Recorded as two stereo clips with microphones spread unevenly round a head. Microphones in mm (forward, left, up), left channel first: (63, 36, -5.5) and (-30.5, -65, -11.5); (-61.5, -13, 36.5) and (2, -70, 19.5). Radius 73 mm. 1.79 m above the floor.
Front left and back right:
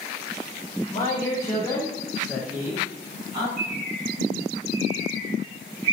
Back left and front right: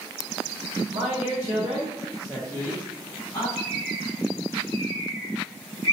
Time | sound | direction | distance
0.9 | a man speaking | straight ahead | 1.0 m
3.6 | a bird | 175° left | 0.8 m